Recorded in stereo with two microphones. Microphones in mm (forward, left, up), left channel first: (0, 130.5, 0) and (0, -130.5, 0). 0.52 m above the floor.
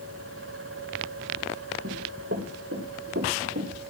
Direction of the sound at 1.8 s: 55° right (ahead or behind).